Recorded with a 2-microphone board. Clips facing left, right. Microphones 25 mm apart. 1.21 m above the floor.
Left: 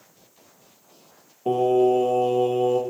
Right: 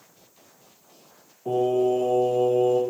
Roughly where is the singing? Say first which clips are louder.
Left 3 dB; left.